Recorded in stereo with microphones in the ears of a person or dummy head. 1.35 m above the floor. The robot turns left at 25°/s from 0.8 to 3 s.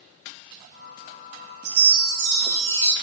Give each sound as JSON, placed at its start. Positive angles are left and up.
{"t": 1.6, "sound": "a chime", "azimuth_deg": -120, "distance_m": 3.0}